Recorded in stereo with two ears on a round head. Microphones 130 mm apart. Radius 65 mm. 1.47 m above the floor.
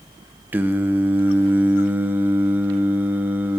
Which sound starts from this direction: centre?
Singing, at 0.5 s.